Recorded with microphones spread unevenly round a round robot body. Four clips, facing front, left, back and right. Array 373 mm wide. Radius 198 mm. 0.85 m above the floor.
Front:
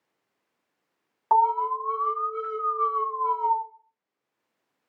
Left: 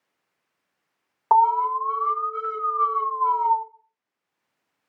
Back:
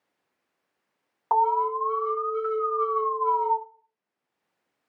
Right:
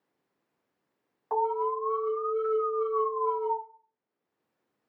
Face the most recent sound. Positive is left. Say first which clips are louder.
# left 9 dB, front 1 dB
turn(degrees=85)